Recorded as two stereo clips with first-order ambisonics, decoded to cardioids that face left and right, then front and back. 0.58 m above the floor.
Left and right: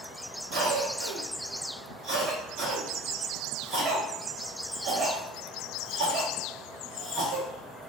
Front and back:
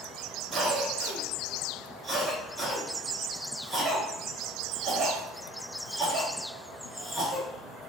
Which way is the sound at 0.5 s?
100° right.